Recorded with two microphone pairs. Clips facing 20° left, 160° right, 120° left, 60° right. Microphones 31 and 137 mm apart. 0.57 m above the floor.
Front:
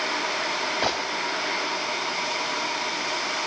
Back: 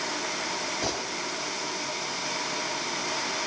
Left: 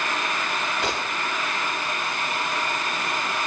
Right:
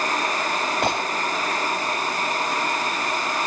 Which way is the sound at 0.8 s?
25° right.